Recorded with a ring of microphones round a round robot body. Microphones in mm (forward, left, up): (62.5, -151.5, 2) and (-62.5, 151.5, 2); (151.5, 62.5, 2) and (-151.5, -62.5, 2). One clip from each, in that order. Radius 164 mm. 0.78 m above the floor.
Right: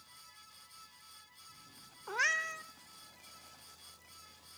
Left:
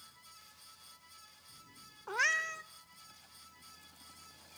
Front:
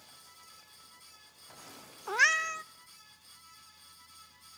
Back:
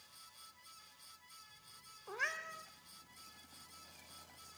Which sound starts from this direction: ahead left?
A cat meowing, at 2.1 s.